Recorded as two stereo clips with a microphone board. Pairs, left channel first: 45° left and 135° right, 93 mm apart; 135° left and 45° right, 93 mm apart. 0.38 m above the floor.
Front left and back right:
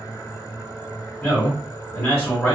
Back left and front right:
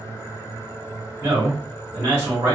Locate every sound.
1.2 s a man speaking: 5° left, 1.6 m